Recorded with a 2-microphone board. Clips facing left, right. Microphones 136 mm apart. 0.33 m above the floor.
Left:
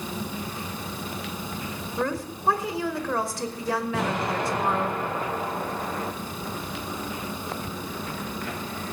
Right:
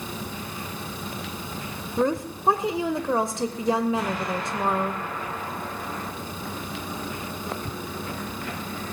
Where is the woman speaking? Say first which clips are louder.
Right 5 dB; 20° right (ahead or behind), 0.8 m.